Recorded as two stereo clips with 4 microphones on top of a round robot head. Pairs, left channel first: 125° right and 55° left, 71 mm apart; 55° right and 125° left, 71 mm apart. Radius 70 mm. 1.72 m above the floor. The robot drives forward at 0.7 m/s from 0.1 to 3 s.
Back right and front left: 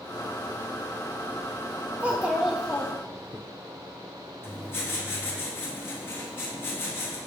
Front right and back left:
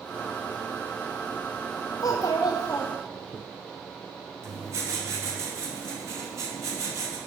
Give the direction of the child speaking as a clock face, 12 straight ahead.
1 o'clock.